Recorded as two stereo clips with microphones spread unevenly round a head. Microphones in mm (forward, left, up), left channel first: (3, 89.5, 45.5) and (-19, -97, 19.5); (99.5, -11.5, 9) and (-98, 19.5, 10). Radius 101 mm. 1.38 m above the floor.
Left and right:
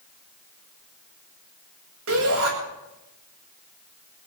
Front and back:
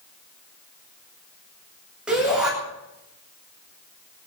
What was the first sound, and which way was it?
A shout, 105° right.